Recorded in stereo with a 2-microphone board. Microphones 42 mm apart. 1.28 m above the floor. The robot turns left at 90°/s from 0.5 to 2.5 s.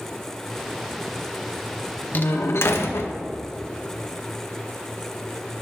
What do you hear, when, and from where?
2.1 s a door slam: 135° left, 1.1 m; by 3.1 s 100° left, 1.1 m